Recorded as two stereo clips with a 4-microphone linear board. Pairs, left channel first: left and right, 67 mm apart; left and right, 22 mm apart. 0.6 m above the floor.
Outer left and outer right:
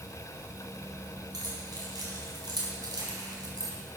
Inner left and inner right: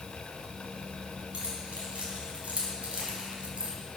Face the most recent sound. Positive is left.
turn(degrees=-70)  # may be behind; listen again after turning